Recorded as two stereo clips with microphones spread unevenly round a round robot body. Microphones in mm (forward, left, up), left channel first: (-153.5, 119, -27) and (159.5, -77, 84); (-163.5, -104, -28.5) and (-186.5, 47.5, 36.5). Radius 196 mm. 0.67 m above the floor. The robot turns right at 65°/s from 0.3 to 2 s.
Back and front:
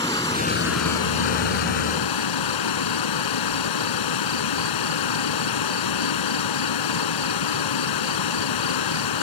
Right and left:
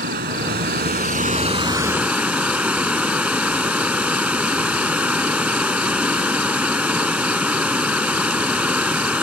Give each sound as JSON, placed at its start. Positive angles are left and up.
{"t": 0.0, "sound": "running water", "azimuth_deg": 70}